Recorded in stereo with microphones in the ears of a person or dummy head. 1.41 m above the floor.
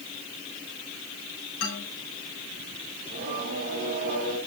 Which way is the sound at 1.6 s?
80° left.